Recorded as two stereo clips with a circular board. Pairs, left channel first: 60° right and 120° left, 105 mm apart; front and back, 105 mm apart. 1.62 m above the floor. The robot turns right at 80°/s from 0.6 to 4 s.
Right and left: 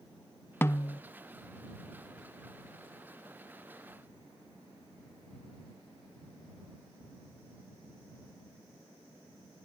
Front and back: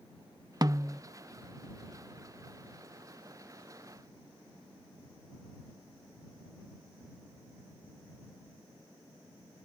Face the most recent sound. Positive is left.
turn(degrees=140)